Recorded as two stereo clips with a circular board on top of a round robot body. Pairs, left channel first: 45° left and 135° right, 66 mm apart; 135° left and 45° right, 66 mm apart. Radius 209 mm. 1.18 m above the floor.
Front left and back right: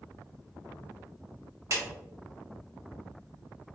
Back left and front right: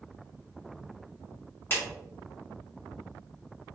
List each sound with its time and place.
1.7 s a clap: 170° right, 1.7 m